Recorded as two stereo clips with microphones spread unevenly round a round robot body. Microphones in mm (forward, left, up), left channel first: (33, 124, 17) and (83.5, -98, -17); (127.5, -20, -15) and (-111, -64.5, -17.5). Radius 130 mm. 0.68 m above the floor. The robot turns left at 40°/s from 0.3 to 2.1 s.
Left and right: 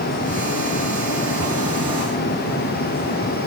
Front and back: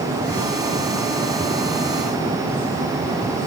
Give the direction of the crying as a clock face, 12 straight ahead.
No crying in this recording.